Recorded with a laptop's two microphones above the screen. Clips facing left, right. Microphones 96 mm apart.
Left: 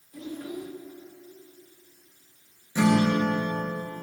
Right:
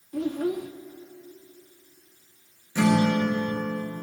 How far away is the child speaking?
About 0.8 m.